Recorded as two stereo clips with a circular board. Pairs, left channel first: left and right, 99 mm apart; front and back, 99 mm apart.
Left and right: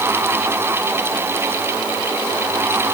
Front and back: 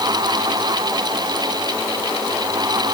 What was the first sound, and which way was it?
Only background noise.